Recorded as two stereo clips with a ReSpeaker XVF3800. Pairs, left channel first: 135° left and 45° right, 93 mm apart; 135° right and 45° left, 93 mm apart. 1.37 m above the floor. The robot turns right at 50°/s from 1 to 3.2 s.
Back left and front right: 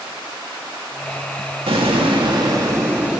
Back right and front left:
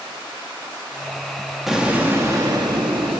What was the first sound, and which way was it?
An explosion, 40° right.